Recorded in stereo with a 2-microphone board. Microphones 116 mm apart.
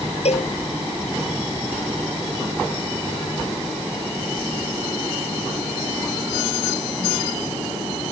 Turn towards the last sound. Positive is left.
turn(degrees=65)  # may be behind; listen again after turning